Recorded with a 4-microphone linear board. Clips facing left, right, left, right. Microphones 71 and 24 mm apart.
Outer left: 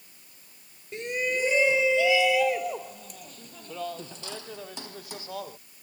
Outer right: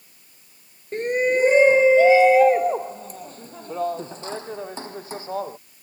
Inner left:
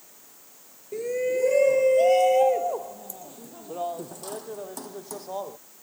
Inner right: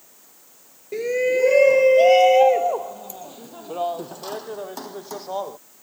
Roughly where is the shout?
Right.